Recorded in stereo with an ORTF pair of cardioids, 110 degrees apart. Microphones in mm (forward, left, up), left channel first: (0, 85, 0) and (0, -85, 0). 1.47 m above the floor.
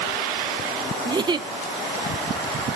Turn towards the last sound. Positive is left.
turn(degrees=-25)